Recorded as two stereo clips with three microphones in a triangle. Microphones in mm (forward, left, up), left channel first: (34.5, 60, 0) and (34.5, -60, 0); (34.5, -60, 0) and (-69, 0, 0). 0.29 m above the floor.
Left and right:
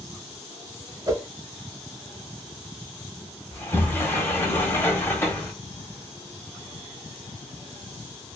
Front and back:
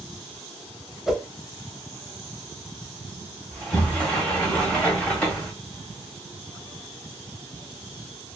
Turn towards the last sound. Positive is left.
turn(degrees=40)